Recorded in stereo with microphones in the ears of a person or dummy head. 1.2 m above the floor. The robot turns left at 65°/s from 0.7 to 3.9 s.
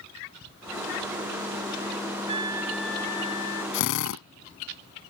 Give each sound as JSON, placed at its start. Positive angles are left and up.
{"t": 2.3, "sound": "a trumpet", "azimuth_deg": -145}
{"t": 3.7, "sound": "a drill", "side_deg": 65}